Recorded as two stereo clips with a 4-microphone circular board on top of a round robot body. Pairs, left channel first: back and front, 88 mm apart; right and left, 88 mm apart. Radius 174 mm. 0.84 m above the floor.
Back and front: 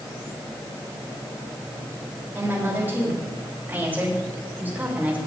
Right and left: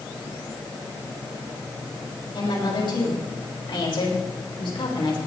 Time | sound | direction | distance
2.4 | a woman speaking | 65° right | 5.5 m